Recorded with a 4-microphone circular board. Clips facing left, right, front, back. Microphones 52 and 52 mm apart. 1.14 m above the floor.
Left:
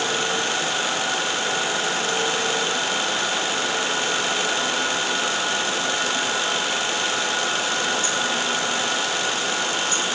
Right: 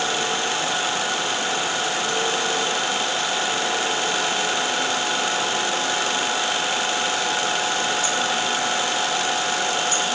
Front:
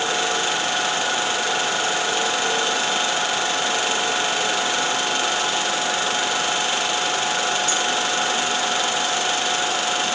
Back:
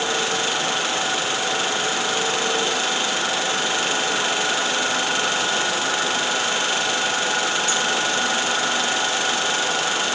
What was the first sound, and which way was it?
Only background noise.